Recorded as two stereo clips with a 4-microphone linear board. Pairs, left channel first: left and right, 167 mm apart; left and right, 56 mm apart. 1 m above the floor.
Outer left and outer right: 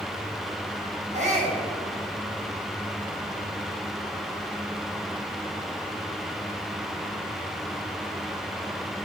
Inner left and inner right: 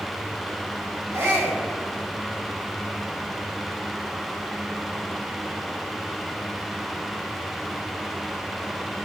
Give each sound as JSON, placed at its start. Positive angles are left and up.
{"t": 1.1, "sound": "a shout", "side_deg": -45, "distance_m": 7.0}